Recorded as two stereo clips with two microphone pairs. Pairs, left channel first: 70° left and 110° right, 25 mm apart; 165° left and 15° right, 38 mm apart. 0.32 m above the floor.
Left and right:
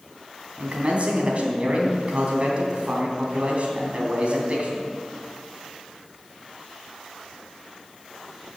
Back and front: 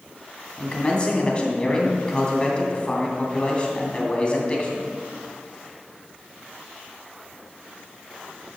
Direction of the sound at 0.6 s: 130° right.